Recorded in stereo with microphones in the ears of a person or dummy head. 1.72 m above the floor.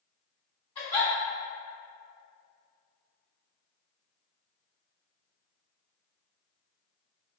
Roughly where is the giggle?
Left.